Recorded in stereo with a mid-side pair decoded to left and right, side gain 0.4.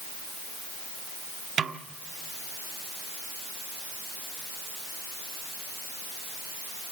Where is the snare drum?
50° right, 1.3 m.